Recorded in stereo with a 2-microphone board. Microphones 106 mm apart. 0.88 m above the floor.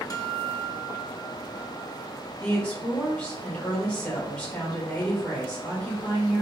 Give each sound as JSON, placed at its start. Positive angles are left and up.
{"t": 0.1, "sound": "a guitar", "side_deg": 35, "distance_m": 0.5}
{"t": 2.4, "sound": "a woman speaking", "side_deg": 10, "distance_m": 1.4}